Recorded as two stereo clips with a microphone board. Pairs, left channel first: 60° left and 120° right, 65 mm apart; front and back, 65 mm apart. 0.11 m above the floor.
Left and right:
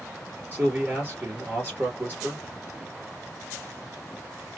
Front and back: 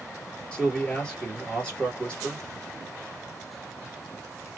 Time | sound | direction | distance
0.5 | a man speaking | 70° right | 2.5 m